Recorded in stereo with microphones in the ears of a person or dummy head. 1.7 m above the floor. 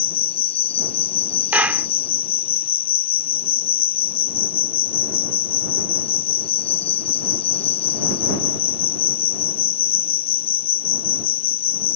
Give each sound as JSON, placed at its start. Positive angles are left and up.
{"t": 0.0, "sound": "an insect", "side_deg": 30}
{"t": 1.5, "sound": "a clap", "side_deg": -10}